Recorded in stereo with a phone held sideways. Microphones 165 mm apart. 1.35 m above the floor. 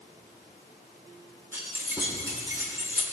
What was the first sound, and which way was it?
Keys jangling, 15° right (ahead or behind).